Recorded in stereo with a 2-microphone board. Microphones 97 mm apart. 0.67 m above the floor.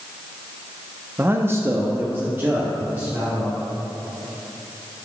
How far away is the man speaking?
About 0.6 m.